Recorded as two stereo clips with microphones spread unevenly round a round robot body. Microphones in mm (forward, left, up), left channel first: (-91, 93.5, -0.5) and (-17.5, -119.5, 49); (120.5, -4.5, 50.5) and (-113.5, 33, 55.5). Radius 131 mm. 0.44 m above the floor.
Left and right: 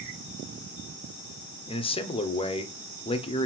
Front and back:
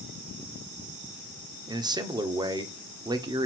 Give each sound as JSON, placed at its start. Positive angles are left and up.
{"t": 1.7, "sound": "a man speaking", "azimuth_deg": 110, "distance_m": 1.2}